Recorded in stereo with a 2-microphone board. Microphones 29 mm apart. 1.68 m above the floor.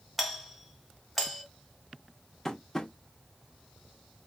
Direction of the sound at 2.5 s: 15° left (ahead or behind).